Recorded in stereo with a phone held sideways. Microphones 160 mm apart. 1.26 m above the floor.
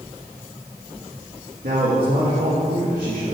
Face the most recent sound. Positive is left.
turn(degrees=-85)